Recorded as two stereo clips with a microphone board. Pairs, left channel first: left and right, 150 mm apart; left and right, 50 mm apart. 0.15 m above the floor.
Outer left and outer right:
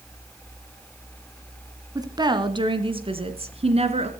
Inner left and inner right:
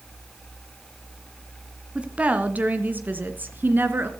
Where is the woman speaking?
25° right (ahead or behind), 1.6 m; by 4.1 s 45° right (ahead or behind), 2.5 m.